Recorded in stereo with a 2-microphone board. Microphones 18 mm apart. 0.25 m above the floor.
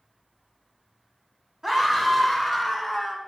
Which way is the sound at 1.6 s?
20° right (ahead or behind).